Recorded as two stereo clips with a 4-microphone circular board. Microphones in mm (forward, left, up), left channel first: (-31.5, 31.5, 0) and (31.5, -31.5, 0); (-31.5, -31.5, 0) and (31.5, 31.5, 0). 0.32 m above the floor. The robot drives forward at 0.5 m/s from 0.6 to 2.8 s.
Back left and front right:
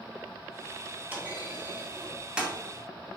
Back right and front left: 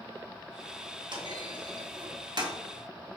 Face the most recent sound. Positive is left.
turn(degrees=35)